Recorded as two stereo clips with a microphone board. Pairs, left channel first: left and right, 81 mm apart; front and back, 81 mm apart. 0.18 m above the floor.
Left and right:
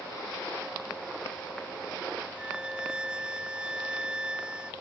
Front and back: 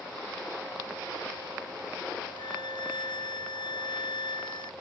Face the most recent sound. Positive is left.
turn(degrees=-10)